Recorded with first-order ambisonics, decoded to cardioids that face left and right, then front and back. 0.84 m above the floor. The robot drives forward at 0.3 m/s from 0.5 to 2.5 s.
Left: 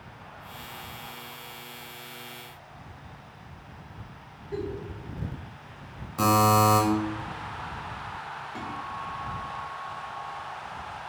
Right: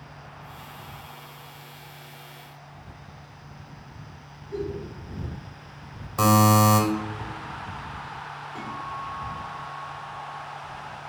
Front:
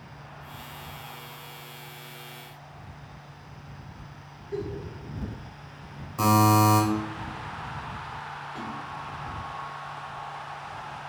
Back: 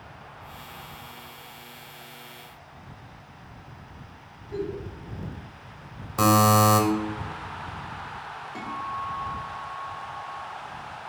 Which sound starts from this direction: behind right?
A buzzer, at 6.2 s.